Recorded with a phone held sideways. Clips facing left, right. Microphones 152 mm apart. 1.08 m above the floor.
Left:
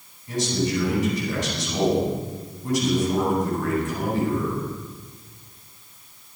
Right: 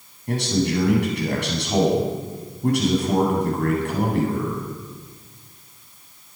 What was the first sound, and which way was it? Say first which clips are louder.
A man speaking: right 2 dB; 60° right (ahead or behind).